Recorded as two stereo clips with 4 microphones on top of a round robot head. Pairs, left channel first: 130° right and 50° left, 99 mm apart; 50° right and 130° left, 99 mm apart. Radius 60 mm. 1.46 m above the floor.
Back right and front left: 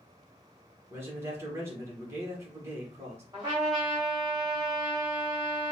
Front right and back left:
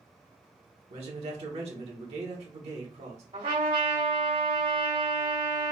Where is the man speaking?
115° left, 1.3 m.